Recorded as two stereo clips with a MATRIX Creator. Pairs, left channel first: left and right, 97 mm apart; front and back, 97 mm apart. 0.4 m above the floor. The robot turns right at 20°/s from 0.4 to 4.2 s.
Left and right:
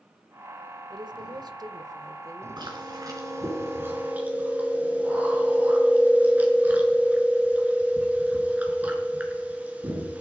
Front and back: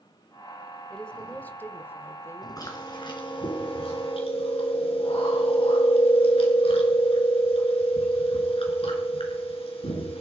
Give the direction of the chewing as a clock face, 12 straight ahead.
2 o'clock.